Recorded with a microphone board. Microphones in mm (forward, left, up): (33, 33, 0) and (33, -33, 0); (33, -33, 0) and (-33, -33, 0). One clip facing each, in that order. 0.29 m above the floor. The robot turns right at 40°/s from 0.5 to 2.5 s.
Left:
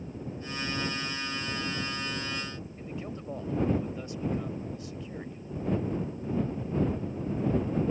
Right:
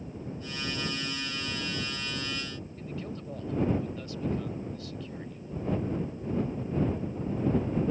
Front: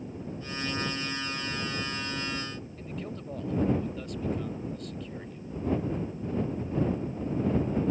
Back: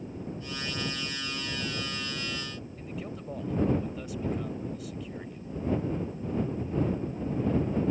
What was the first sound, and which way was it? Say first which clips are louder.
A man speaking: right 1 dB, even; 105° left.